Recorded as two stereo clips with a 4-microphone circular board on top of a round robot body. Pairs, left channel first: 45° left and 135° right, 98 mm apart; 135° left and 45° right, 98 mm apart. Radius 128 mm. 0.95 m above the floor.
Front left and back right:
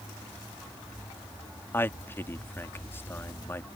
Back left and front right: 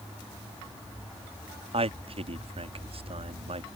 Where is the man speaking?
25° right.